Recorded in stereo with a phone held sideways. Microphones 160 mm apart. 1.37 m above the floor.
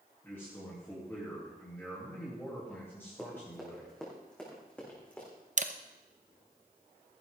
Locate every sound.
0.2 s a man speaking: 15° left (ahead or behind), 3 m
3.2 s running footsteps: centre (ahead or behind), 4 m; by 5.3 s 10° left (ahead or behind), 6 m
5.6 s a camera shutter: 50° right (ahead or behind), 0.7 m